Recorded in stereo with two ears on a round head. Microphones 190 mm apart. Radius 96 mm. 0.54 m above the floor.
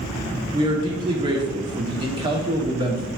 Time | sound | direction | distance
0.5 | a man speaking | 25° right (ahead or behind) | 0.8 m